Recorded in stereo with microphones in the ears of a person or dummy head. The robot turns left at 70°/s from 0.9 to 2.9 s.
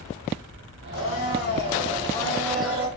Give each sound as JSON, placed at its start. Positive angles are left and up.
{"t": 0.9, "sound": "a blender", "azimuth_deg": 115, "distance_m": 4.5}